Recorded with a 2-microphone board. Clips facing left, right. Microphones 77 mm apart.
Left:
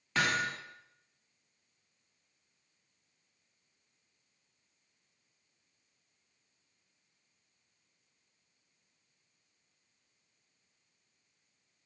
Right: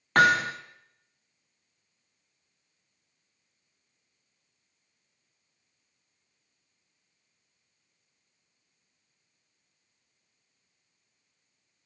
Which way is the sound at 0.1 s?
55° right (ahead or behind).